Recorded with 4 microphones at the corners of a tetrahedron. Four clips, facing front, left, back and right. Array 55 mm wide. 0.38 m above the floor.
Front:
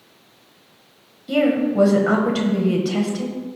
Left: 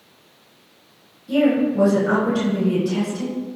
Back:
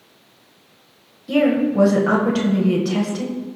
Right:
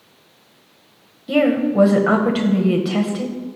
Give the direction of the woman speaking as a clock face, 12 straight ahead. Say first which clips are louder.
Right 1 dB, back 1 dB; 3 o'clock.